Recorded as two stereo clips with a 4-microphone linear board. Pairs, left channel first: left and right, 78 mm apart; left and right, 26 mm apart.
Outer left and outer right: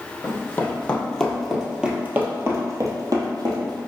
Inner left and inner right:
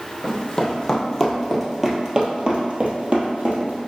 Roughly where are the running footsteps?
Left.